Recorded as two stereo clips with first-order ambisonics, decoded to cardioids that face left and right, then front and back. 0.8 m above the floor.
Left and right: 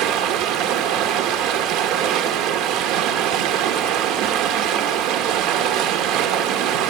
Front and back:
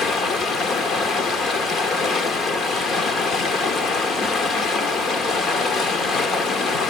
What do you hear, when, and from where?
0.0 s running water: 60° right, 0.9 m